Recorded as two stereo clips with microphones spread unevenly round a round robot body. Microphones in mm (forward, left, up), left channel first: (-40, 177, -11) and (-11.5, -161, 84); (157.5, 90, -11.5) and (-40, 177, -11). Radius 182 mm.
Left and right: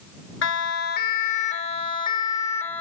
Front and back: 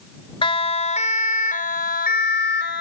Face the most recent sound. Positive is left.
turn(degrees=10)